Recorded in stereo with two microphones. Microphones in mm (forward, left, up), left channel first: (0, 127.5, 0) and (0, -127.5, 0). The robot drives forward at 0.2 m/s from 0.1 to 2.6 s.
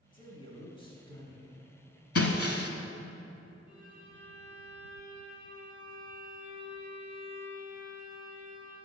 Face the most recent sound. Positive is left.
turn(degrees=60)  # may be behind; listen again after turning